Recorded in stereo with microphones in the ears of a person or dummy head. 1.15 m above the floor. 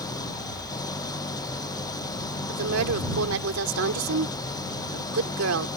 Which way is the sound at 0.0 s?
20° left (ahead or behind).